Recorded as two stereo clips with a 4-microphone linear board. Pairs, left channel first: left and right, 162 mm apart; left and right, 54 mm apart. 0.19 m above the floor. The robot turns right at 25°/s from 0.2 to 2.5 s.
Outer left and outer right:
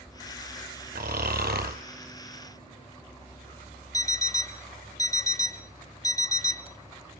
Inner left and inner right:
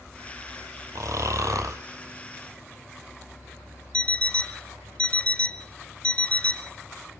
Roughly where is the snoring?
Right.